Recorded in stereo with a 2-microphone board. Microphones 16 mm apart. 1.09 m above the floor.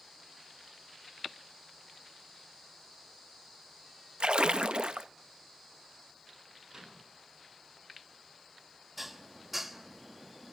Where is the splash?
70° right (ahead or behind), 0.6 m.